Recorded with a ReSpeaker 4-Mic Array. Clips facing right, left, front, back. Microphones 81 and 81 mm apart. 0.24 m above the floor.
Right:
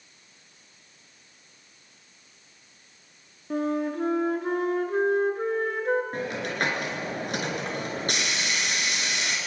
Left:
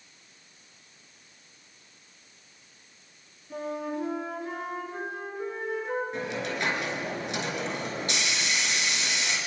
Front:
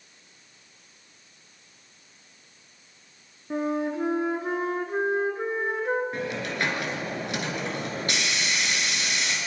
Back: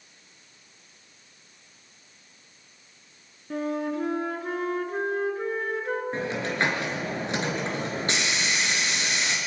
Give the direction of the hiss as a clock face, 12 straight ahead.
4 o'clock.